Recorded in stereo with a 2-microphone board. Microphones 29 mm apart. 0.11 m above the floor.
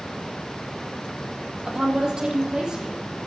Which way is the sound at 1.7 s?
25° right (ahead or behind).